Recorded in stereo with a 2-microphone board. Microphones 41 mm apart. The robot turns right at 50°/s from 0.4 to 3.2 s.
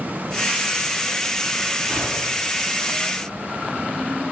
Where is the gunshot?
25° right, 7 m; by 2.7 s 15° left, 7 m.